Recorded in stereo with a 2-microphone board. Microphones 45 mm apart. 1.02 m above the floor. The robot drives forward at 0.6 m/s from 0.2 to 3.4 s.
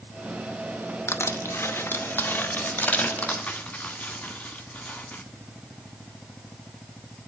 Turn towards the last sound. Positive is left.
turn(degrees=30)  # may be behind; listen again after turning